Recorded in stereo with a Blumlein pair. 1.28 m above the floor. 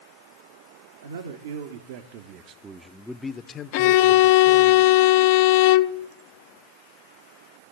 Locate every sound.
1.0 s a man speaking: 70° right, 1.2 m; by 4.7 s 50° left, 1.2 m
3.7 s a violin: 45° left, 0.5 m